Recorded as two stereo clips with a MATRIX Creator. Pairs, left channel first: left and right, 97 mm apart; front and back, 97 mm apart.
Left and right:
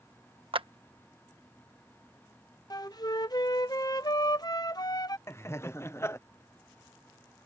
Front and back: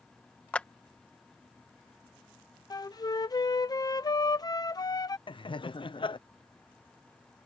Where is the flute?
45° left.